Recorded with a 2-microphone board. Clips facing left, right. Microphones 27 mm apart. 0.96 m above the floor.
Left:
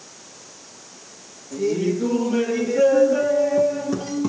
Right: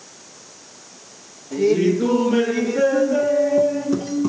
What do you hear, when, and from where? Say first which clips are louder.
1.5 s laughter: right 5 dB; 35° right (ahead or behind), 0.9 m; by 4.3 s 10° left (ahead or behind), 1.2 m